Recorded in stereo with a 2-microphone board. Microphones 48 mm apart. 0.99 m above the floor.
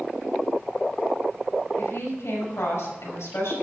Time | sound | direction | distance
1.8 | a woman speaking | 70° left (ahead or behind) | 5 m